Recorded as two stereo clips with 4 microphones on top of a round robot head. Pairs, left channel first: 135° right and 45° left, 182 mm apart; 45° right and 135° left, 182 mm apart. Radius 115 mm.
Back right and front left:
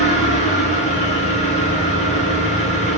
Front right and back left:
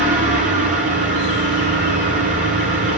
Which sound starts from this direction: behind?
An engine running, at 0.0 s.